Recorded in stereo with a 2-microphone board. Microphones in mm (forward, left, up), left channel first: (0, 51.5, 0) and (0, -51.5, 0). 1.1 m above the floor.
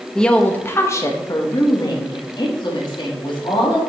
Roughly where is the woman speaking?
Centre.